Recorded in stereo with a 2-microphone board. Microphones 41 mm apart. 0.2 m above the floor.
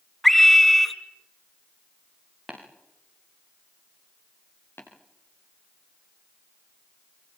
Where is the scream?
Centre (ahead or behind), 2.5 m.